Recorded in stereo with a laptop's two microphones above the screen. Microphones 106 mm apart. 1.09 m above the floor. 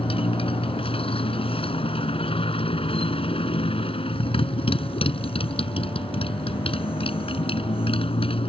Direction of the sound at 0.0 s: 60° left (ahead or behind).